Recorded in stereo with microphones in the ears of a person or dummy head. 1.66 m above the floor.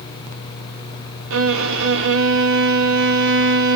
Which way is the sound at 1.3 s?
70° right (ahead or behind).